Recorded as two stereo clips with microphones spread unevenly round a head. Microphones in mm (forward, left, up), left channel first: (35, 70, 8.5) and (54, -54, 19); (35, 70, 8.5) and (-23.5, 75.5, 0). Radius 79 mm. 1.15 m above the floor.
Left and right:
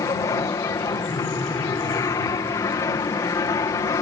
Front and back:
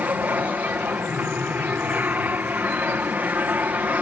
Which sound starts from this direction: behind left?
An aircraft, at 0.0 s.